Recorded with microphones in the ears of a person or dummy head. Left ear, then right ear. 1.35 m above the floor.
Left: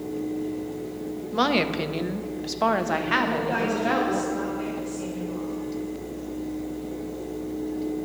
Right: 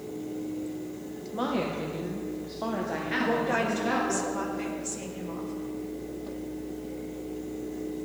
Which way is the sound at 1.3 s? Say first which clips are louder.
Left 7 dB; 65° left (ahead or behind).